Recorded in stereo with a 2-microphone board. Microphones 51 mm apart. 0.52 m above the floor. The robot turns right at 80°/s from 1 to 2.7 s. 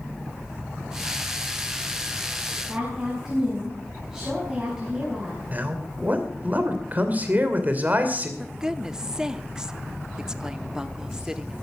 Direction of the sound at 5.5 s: 30° right (ahead or behind).